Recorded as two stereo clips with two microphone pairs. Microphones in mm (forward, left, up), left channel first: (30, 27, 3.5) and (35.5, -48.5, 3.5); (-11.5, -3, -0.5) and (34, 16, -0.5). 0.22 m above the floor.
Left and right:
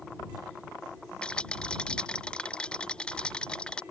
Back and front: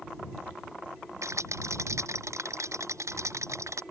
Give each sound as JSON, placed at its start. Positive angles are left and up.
{"t": 1.2, "sound": "a rattle", "azimuth_deg": 15}